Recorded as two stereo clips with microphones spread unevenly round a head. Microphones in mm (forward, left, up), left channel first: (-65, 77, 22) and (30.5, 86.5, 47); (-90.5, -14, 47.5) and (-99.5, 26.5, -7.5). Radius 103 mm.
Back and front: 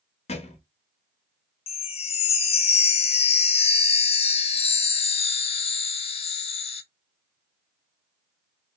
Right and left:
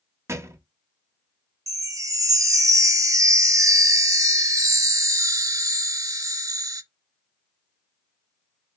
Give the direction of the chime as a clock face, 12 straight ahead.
7 o'clock.